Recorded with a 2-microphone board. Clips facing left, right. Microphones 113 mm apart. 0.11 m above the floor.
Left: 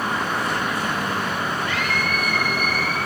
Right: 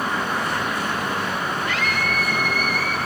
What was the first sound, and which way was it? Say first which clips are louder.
A scream: even; 50° right (ahead or behind).